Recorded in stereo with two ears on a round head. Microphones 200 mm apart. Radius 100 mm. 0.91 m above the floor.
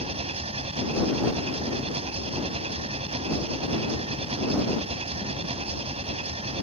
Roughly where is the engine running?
Right.